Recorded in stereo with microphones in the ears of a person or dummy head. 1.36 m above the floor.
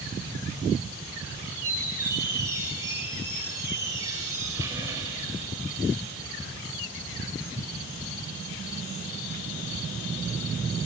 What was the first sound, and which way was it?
A squeak, 15° right (ahead or behind).